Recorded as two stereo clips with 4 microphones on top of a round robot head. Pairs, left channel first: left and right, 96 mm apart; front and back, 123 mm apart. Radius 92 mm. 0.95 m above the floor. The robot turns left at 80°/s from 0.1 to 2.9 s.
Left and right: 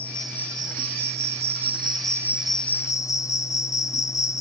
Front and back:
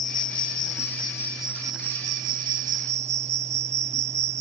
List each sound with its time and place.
0.0 s an insect: 10° left; by 4.4 s 145° left